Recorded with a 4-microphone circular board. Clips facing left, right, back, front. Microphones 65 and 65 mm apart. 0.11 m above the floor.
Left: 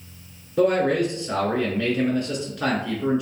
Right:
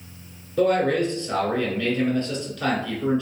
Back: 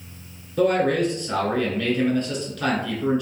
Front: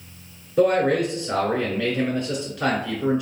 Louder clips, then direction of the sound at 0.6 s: Left 1 dB, front 1 dB; 45° left.